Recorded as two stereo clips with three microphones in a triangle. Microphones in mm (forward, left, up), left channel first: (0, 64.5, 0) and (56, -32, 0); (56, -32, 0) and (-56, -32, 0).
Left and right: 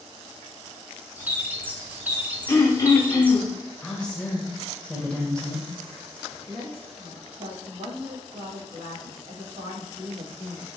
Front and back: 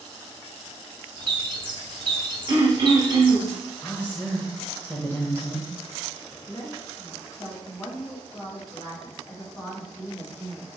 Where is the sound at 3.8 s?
50° left, 0.9 m.